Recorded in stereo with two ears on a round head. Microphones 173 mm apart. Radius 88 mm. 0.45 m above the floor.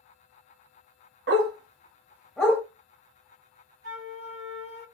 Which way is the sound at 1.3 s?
55° right (ahead or behind).